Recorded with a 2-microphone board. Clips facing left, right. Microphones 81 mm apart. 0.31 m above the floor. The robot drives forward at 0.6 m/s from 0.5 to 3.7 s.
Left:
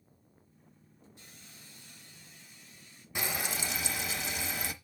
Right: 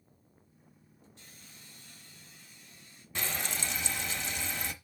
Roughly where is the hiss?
Centre.